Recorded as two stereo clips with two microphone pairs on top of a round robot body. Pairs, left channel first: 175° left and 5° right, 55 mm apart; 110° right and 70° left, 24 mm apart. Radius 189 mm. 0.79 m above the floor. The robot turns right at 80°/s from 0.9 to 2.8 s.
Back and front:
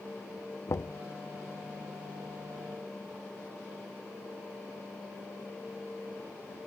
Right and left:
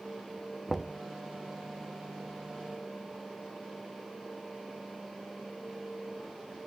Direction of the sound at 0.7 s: 150° left.